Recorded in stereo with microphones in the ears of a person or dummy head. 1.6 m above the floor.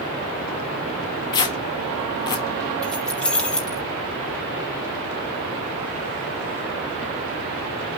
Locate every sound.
1.3 s tearing paper: 15° left (ahead or behind), 1.3 m
2.8 s keys jangling: 5° left (ahead or behind), 3.5 m